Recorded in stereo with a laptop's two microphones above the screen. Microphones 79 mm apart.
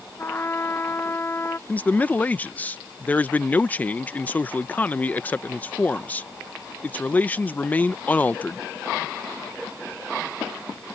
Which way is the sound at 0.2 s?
30° left (ahead or behind).